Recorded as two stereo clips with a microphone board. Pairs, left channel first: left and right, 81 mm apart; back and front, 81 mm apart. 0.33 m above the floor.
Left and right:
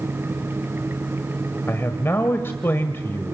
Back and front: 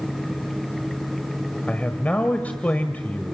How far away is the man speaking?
About 1.4 m.